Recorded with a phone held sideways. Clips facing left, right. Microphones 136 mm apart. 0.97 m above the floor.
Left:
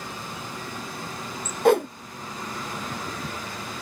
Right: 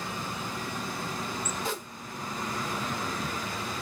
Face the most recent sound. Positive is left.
turn(degrees=65)  # may be behind; listen again after turning